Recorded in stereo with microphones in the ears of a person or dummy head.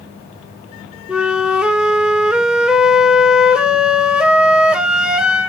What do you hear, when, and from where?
1.1 s a flute: centre (ahead or behind), 0.7 m